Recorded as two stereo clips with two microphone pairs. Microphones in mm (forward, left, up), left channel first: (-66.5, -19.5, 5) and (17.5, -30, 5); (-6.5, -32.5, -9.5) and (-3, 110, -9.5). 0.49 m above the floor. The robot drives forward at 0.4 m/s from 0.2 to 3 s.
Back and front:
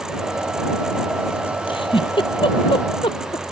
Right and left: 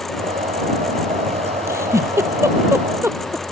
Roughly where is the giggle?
Behind.